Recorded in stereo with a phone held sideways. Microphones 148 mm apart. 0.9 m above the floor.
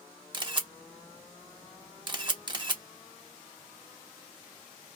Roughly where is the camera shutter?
Right.